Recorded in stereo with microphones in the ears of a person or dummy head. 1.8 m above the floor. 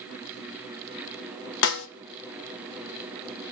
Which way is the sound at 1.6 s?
70° left (ahead or behind).